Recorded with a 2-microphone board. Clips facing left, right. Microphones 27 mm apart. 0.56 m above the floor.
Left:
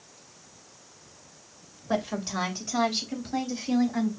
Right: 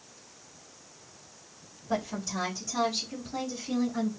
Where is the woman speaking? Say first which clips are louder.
Left 3 dB; 45° left (ahead or behind), 2 m; by 4.1 s 55° left (ahead or behind), 3.5 m.